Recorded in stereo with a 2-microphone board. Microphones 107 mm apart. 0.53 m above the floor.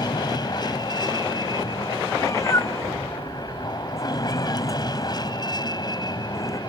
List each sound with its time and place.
0.0 s an aircraft: 40° left (ahead or behind)
2.1 s a cat meowing: 30° left (ahead or behind)